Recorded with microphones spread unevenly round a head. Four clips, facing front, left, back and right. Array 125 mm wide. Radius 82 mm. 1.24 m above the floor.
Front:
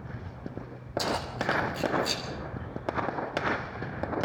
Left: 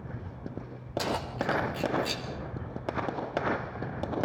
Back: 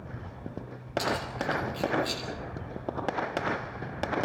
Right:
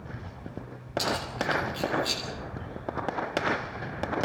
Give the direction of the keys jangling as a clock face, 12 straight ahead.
10 o'clock.